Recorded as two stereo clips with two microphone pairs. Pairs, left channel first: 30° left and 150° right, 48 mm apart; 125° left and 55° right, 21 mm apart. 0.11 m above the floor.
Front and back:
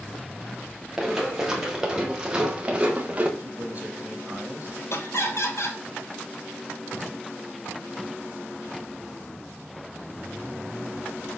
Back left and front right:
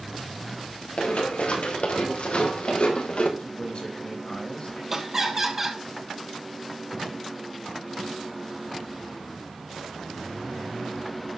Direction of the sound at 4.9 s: 15° left.